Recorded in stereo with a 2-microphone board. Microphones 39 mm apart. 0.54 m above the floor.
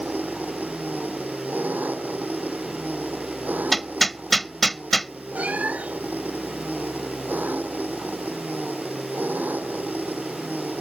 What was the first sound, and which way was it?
An engine running, 50° right (ahead or behind).